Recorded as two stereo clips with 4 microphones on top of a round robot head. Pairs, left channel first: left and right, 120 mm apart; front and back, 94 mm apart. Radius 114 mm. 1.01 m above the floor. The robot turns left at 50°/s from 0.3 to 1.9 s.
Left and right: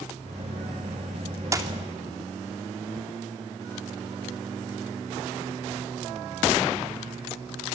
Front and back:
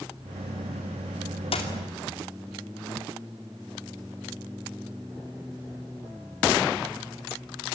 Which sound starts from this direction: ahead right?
A clap, at 1.5 s.